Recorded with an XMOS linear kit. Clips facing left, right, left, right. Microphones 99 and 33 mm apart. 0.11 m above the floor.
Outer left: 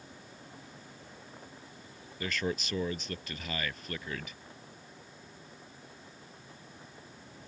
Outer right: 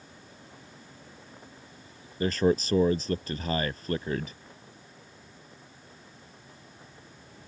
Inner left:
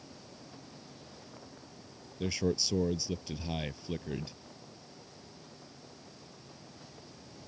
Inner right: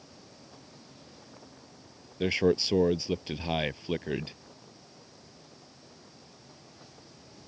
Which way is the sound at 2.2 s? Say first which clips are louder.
Outer right 10 dB, inner right 7 dB; 40° right (ahead or behind).